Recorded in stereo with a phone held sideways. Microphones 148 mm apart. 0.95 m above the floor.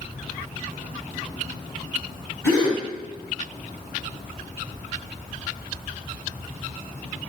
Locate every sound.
2.4 s a gasp: 15° left (ahead or behind), 1.4 m